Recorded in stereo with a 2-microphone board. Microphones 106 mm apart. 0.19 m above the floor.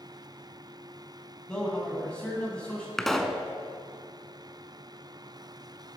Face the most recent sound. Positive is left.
turn(degrees=5)  # may be behind; listen again after turning